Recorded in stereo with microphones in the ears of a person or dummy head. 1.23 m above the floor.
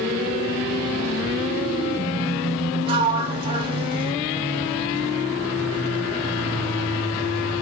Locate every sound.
2.9 s a sliding door: 30° right (ahead or behind), 0.8 m